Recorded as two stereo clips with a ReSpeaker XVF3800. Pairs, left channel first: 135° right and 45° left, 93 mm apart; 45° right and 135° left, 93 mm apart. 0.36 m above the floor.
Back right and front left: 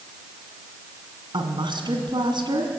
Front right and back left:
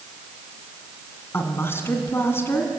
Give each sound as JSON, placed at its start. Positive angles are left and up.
{"t": 1.3, "sound": "a woman speaking", "azimuth_deg": 15, "distance_m": 3.0}